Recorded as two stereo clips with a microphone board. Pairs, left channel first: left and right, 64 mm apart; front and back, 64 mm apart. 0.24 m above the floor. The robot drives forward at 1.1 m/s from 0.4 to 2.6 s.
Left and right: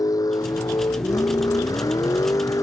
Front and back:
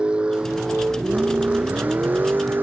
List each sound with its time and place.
0.0 s a vehicle: 105° left; by 2.6 s 120° left